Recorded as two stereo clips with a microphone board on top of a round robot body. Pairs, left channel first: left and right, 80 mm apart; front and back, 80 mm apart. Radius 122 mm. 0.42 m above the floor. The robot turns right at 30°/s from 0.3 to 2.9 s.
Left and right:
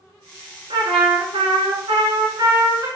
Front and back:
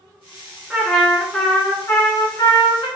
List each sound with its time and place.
0.7 s a trumpet: 100° right, 2.0 m; by 2.9 s 35° right, 2.0 m